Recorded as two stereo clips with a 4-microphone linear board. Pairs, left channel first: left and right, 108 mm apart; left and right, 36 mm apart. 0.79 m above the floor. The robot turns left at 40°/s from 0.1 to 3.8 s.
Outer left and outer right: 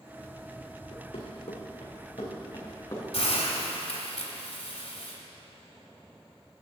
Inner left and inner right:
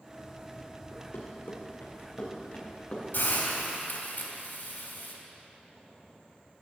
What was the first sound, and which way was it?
Running footsteps, 60° left (ahead or behind).